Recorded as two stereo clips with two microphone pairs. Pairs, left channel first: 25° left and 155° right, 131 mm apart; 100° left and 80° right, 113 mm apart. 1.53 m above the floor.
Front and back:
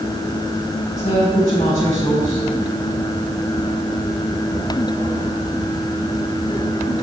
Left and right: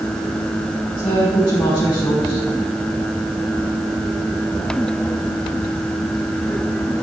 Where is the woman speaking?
55° left, 4.5 m.